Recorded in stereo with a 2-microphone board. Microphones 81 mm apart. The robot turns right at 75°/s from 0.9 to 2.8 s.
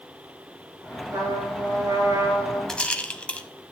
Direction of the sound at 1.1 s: 120° right.